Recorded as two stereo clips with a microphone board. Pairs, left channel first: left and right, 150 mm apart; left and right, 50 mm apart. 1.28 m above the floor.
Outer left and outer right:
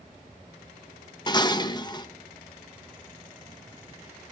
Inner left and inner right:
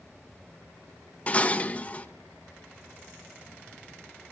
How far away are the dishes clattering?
About 0.9 m.